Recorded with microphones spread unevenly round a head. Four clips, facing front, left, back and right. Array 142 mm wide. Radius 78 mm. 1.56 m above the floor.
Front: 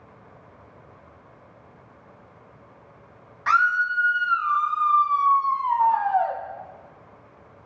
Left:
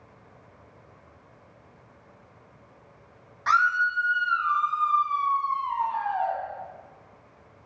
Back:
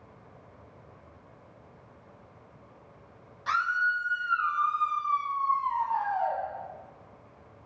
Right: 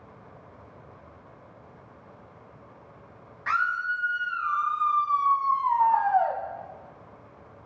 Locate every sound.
3.5 s a scream: 20° left, 1.9 m; by 6.4 s 45° right, 2 m